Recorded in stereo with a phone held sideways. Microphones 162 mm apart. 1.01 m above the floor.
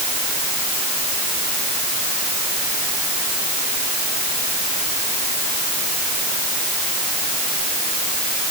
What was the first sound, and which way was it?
Only background noise.